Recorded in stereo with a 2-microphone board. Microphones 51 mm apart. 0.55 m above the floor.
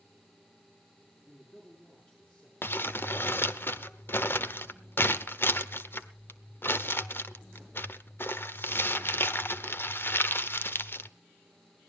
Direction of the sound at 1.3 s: 25° left (ahead or behind).